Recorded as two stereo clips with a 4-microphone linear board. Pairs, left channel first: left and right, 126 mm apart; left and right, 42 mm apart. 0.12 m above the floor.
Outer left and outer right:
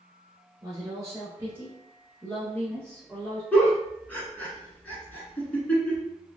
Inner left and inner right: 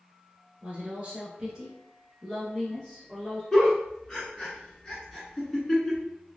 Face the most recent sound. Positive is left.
turn(degrees=15)  # may be behind; listen again after turning